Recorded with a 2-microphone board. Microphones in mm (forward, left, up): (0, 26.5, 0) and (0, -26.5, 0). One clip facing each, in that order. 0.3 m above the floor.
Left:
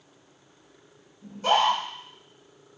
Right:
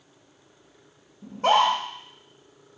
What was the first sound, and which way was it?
A scream, 50° right (ahead or behind).